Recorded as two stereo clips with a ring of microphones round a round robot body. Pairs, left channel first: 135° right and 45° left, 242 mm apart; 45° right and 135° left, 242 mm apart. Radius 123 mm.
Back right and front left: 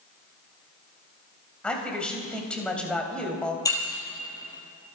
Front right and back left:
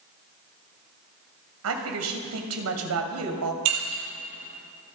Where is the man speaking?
140° left, 2.5 m.